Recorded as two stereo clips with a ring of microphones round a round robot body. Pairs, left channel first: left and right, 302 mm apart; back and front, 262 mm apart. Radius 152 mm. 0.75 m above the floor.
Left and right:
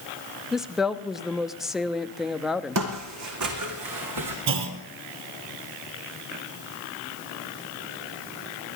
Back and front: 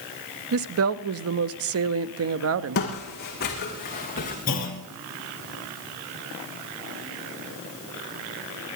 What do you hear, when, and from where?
0.5 s a woman speaking: straight ahead, 0.7 m
2.8 s footsteps: 125° right, 1.6 m; by 4.4 s 115° right, 2.5 m
4.5 s a clunk: 115° right, 1.6 m